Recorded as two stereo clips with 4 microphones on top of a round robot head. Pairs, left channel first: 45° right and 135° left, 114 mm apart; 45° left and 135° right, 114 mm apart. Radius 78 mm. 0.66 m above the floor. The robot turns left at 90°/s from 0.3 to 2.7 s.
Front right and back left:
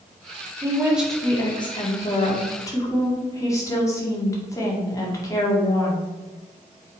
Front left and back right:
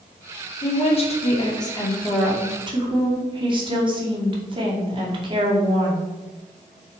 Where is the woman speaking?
85° left, 2.0 m; by 6.0 s 100° right, 2.0 m.